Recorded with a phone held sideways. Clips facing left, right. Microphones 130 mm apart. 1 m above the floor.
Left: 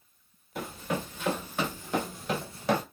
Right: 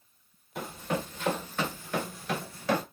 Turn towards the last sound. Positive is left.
turn(degrees=25)  # may be behind; listen again after turning